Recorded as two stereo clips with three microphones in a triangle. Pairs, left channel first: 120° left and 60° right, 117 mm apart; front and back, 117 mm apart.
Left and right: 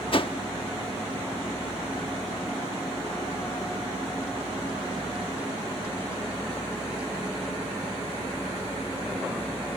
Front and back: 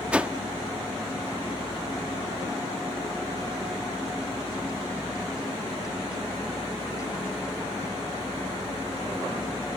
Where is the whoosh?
105° left.